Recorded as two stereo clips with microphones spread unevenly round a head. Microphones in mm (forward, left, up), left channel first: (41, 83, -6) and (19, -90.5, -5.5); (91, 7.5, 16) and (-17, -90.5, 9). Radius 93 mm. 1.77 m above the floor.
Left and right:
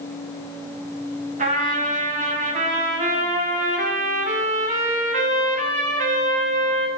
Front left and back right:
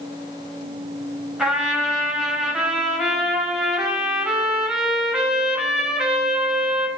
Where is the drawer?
No drawer in this recording.